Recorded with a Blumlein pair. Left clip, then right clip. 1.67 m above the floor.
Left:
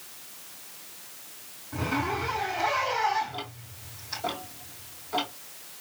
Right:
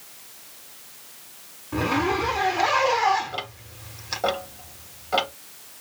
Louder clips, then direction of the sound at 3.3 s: Right 5 dB; 55° right.